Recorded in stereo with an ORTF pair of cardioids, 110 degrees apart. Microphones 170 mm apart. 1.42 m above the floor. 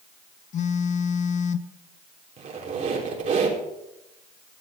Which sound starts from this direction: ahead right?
A squeak, at 2.4 s.